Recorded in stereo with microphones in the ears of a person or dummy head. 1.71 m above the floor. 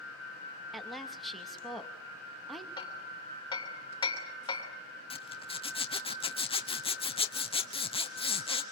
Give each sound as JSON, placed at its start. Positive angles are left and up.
{"t": 0.7, "sound": "a woman speaking", "side_deg": 0, "distance_m": 2.5}
{"t": 2.8, "sound": "hammering", "side_deg": 25, "distance_m": 2.5}
{"t": 5.1, "sound": "a zipper", "side_deg": 30, "distance_m": 0.9}